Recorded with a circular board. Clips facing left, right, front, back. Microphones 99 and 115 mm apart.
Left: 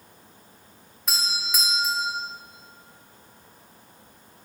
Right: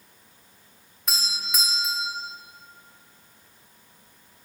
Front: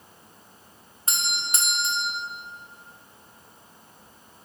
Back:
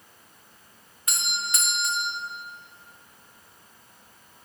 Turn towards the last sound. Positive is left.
turn(degrees=0)